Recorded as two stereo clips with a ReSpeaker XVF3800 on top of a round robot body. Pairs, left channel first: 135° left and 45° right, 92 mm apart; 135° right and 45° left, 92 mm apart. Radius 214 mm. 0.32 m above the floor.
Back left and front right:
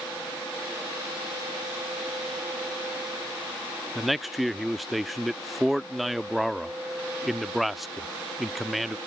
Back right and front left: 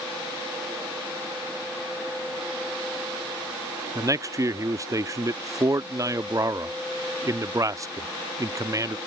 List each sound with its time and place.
4.0 s a man speaking: 45° left